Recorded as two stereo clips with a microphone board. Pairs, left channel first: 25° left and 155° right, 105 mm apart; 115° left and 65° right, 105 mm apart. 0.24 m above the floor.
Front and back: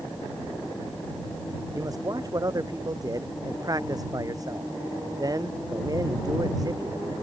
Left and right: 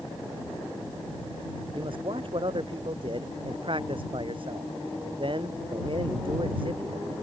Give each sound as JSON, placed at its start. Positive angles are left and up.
{"t": 1.7, "sound": "a man speaking", "azimuth_deg": -100}